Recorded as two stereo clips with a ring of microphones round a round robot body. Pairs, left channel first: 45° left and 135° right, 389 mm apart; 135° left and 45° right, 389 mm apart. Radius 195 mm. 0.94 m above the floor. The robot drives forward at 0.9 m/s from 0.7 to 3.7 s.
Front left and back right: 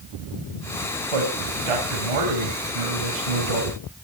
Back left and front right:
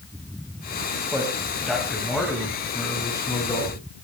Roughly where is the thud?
No thud in this recording.